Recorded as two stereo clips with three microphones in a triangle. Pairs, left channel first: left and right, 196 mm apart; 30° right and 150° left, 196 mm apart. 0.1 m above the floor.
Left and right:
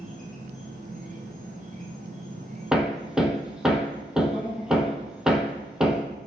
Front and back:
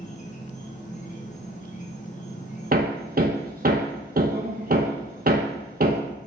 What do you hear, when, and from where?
0.0 s an insect: 60° right, 2 m
2.7 s hammering: 175° right, 1.2 m